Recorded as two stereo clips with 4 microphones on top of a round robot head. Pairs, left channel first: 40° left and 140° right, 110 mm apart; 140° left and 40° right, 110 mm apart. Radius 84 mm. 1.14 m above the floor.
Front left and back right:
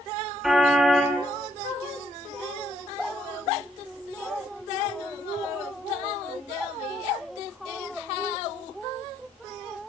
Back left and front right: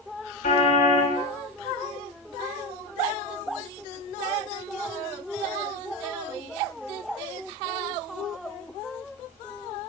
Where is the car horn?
130° left, 6 m.